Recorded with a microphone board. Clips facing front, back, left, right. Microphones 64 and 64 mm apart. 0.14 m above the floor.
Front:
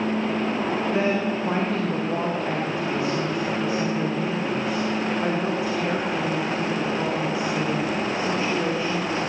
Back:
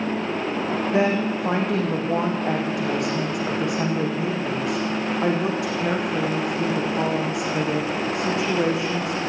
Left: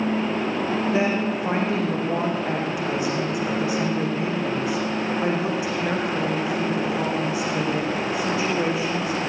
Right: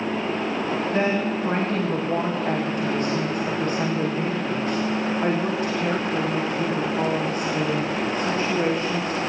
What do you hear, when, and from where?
0.9 s a woman speaking: 170° left, 6.5 m